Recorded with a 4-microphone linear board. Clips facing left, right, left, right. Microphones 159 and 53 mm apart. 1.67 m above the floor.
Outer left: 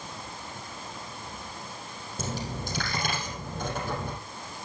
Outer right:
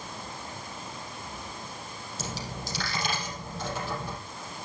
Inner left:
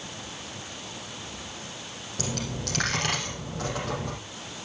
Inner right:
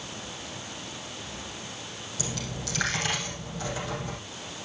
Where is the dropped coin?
50° left (ahead or behind), 5 m.